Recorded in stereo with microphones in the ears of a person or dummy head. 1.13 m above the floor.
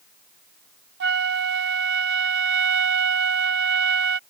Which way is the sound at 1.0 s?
55° right (ahead or behind).